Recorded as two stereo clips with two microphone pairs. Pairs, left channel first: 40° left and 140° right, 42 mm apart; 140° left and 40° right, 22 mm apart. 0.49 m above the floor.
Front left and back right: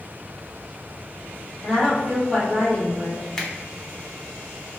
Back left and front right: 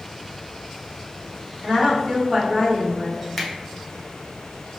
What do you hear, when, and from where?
1.6 s a woman speaking: 25° right, 1.5 m
3.4 s a finger snap: 95° left, 0.5 m